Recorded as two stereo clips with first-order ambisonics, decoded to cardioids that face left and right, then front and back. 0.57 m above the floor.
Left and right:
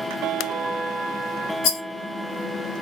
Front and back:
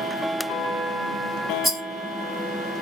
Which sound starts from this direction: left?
A rattle, at 1.6 s.